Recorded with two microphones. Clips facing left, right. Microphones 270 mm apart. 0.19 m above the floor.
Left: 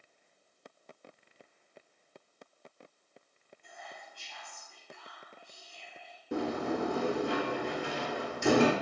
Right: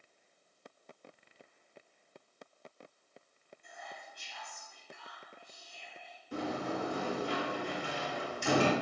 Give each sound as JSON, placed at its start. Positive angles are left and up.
{"t": 3.6, "sound": "whispering", "side_deg": -20, "distance_m": 1.0}
{"t": 6.3, "sound": "a sliding door", "side_deg": 70, "distance_m": 0.7}